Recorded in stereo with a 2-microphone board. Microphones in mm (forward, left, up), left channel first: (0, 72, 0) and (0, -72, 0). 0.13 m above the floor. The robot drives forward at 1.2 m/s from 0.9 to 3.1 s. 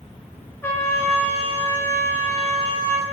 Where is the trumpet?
15° left (ahead or behind), 2 m; by 3.0 s 20° left (ahead or behind), 2 m.